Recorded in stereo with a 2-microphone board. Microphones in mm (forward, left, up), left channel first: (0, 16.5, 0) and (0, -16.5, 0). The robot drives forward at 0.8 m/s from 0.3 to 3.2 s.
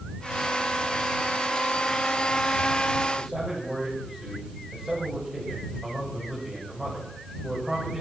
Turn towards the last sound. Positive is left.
turn(degrees=-15)  # may be behind; listen again after turning